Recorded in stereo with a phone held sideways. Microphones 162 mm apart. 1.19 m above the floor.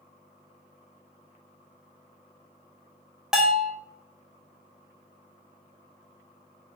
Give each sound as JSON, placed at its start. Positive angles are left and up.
{"t": 3.3, "sound": "a bell", "side_deg": -5, "distance_m": 0.7}